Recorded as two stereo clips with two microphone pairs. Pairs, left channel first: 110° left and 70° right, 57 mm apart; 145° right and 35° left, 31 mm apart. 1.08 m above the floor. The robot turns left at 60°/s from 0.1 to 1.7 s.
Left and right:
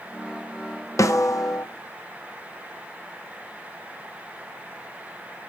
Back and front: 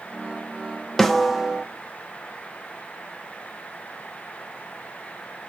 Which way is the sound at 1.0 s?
135° left.